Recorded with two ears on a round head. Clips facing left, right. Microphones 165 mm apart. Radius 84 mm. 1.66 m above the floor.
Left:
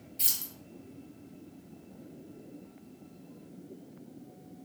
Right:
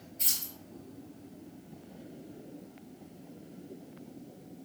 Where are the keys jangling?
70° left (ahead or behind), 1.5 m.